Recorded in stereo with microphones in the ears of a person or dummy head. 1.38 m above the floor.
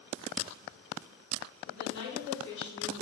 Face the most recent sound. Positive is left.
turn(degrees=70)  # may be behind; listen again after turning